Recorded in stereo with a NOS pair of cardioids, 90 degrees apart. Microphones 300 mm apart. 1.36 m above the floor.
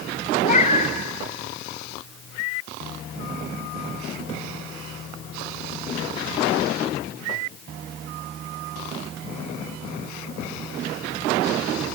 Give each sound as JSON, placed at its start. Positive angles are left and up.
{"t": 0.4, "sound": "a cat meowing", "azimuth_deg": 25, "distance_m": 2.5}